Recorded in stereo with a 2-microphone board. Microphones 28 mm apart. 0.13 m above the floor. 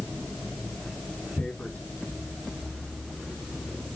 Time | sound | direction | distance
1.4 | tearing paper | 60° left (ahead or behind) | 3.5 m